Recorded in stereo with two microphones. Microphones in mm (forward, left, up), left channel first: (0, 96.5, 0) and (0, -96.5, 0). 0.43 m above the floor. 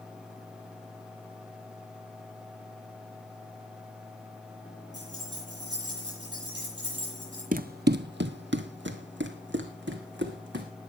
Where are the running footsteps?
45° right (ahead or behind), 0.6 m; by 10.7 s 70° right (ahead or behind), 2.5 m.